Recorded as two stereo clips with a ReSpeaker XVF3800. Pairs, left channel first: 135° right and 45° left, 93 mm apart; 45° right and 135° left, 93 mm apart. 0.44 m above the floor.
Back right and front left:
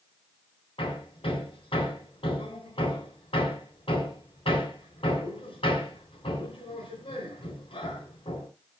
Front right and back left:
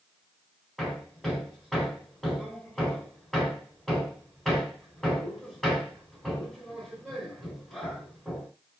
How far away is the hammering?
About 3.5 m.